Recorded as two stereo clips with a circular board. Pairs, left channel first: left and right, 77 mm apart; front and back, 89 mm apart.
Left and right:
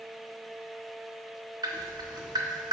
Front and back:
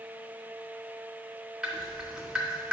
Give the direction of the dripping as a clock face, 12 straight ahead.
3 o'clock.